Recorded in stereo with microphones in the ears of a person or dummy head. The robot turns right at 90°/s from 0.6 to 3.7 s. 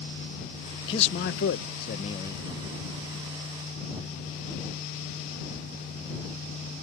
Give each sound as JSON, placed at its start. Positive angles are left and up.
{"t": 0.9, "sound": "a man speaking", "azimuth_deg": 30}